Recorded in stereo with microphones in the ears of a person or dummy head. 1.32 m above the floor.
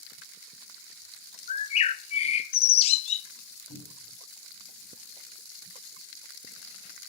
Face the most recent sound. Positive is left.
turn(degrees=85)